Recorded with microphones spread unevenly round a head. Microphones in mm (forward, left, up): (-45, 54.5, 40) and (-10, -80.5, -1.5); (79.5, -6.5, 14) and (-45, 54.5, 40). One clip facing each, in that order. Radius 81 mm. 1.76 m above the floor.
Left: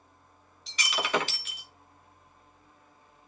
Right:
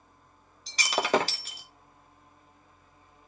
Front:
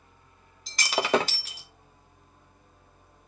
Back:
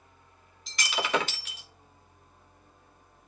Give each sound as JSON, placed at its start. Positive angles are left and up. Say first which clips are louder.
{"t": 0.7, "sound": "breaking glass", "louder": "right 5 dB, front 5 dB", "azimuth_deg": -30, "distance_m": 1.0}